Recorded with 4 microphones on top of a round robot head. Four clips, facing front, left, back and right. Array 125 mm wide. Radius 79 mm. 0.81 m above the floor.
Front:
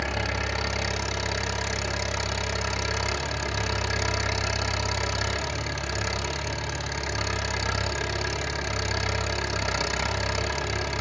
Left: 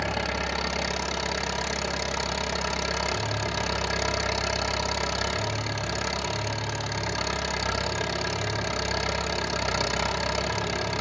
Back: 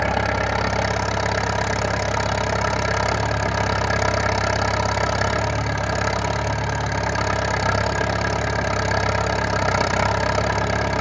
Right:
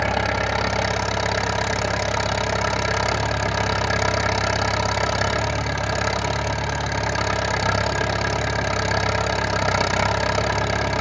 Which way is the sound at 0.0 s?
145° right.